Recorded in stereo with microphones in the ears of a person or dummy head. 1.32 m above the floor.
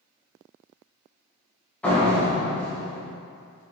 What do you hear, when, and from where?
1.8 s a door slam: 5° left (ahead or behind), 0.8 m